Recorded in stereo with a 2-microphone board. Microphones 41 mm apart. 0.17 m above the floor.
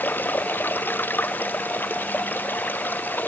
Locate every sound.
0.0 s running water: 55° left (ahead or behind)